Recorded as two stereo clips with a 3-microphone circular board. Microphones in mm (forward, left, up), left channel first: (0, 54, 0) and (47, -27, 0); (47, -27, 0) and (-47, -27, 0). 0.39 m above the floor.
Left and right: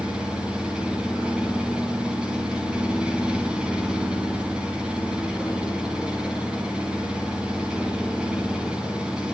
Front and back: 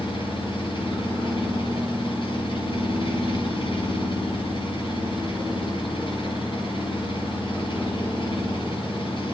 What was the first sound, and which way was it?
An engine running, 20° left.